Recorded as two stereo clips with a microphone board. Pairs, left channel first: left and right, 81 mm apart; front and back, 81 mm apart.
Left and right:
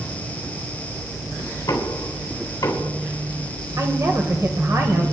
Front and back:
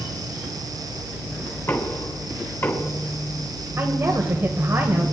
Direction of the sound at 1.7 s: 50° left.